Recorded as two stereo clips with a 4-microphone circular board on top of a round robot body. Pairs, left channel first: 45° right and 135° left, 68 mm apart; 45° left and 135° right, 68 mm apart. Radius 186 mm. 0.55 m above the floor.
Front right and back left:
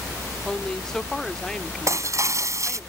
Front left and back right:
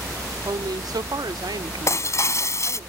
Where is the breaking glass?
90° left.